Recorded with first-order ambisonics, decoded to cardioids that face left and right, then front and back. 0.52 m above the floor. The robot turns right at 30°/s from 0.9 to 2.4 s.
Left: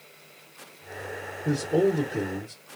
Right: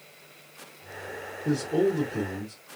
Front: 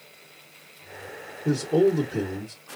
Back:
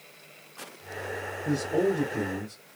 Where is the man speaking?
5° right, 1.2 m; by 2.5 s 20° left, 1.2 m.